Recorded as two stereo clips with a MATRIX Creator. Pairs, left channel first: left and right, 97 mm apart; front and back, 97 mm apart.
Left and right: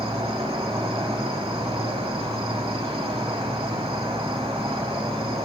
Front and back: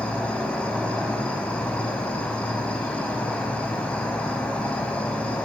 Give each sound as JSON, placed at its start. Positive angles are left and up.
{"t": 0.0, "sound": "an insect", "azimuth_deg": -75, "distance_m": 0.7}